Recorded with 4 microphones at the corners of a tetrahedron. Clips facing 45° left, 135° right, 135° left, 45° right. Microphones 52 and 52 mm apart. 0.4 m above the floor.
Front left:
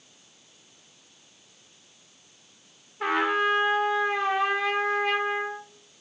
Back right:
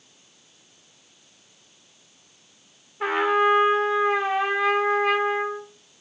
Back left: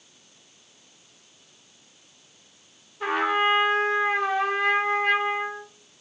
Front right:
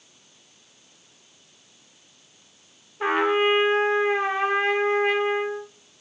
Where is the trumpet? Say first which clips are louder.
Back right 4 dB, front right 2 dB; 55° right, 0.7 m.